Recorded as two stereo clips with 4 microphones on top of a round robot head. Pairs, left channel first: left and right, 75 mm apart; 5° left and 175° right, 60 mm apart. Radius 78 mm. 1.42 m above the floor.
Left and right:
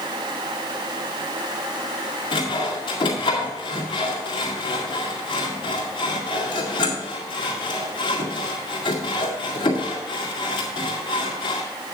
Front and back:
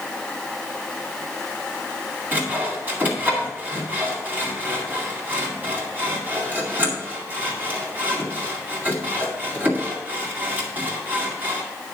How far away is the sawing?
About 2 m.